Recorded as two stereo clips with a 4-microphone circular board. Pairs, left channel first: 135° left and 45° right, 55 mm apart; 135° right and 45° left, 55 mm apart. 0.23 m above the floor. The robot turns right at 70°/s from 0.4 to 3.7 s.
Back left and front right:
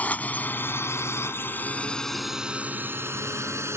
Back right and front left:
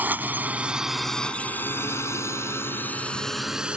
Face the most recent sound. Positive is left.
turn(degrees=-25)